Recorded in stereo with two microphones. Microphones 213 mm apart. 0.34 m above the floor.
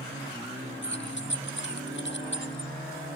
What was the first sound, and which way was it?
Keys jangling, 60° left (ahead or behind).